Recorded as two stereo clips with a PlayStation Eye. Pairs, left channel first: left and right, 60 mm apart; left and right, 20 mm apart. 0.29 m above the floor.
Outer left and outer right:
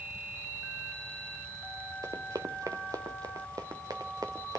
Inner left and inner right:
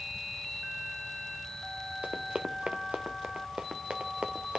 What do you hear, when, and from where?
2.0 s running footsteps: 65° right (ahead or behind), 1.9 m; by 4.6 s 80° right, 2.5 m